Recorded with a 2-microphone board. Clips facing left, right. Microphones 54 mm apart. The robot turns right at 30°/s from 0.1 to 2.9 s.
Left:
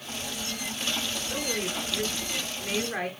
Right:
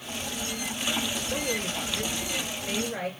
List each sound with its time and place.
1.3 s a woman speaking: 10° left, 4.5 m; by 3.1 s 60° left, 4.5 m